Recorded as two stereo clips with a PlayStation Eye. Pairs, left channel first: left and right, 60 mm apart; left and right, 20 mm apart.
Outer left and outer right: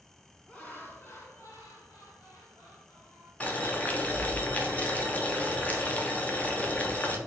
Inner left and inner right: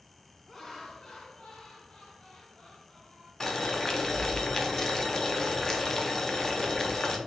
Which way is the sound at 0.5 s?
25° left (ahead or behind).